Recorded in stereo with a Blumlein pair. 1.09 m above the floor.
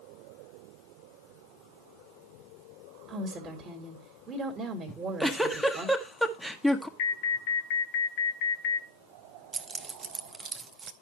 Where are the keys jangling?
20° right, 0.8 m.